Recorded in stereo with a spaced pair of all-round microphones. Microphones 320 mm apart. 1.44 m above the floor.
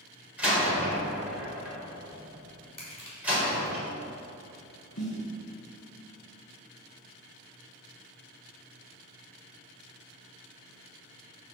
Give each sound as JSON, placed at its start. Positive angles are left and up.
{"t": 0.4, "sound": "a door slam", "side_deg": -5, "distance_m": 4.0}
{"t": 2.8, "sound": "crushing", "side_deg": 70, "distance_m": 3.5}
{"t": 5.0, "sound": "a snare drum", "side_deg": 60, "distance_m": 3.0}